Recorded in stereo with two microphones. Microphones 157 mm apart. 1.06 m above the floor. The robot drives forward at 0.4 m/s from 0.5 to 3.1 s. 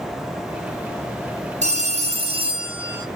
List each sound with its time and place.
1.6 s a phone ringing: 50° right (ahead or behind), 0.7 m; by 3.1 s 30° right (ahead or behind), 1.1 m